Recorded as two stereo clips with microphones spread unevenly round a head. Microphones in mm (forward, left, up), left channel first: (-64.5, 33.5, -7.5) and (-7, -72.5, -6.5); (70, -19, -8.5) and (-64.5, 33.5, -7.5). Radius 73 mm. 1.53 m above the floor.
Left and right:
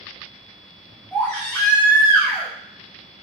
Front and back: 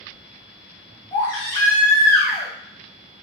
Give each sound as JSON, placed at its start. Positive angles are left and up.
{"t": 1.1, "sound": "a baby crying", "azimuth_deg": 40, "distance_m": 0.9}